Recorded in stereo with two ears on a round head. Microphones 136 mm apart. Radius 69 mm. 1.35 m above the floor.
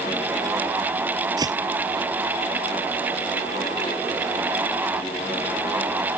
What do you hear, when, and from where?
1.4 s footsteps: 30° right (ahead or behind)